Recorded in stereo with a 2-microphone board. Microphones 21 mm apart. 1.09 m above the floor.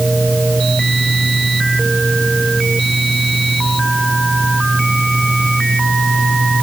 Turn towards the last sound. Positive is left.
No sound to turn to.